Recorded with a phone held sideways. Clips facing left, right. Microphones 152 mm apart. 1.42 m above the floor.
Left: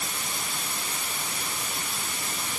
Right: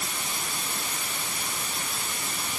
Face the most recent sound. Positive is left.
No sound to turn to.